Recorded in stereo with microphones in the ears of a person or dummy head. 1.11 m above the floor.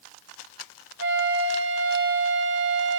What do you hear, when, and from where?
1.0 s a flute: 65° right (ahead or behind), 1.0 m